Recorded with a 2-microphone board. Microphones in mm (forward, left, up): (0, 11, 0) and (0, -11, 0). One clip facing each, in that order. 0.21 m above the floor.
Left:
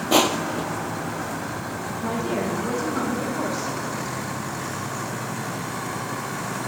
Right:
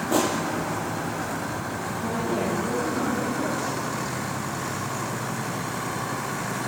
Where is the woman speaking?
75° left (ahead or behind), 10 m.